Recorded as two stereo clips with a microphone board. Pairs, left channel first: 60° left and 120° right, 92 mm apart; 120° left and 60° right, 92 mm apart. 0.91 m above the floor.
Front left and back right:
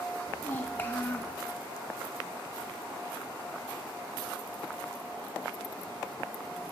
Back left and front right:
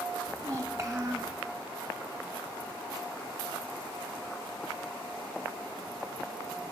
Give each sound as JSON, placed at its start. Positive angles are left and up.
{"t": 0.3, "sound": "a child speaking", "azimuth_deg": 5, "distance_m": 0.6}